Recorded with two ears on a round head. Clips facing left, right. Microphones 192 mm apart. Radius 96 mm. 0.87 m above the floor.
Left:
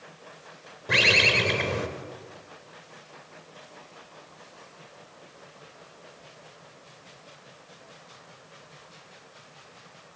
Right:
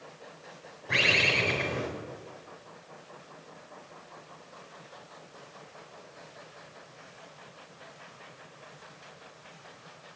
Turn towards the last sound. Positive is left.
turn(degrees=65)  # may be behind; listen again after turning